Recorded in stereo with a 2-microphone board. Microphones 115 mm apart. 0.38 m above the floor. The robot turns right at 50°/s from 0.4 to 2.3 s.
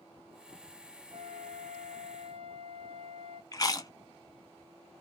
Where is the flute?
125° right, 0.5 m; by 3.4 s 65° right, 0.5 m.